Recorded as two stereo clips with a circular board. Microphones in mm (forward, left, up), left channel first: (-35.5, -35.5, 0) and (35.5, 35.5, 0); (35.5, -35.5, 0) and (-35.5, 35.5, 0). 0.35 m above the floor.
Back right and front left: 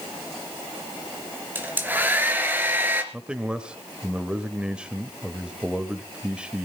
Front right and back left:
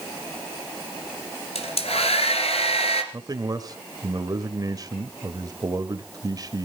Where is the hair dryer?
30° right, 2.5 m.